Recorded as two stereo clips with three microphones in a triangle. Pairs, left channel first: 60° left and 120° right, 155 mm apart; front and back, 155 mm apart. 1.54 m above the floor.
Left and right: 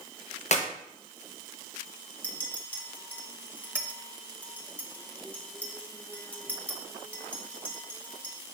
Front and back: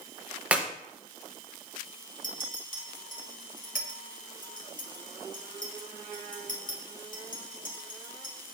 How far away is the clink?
About 1.6 m.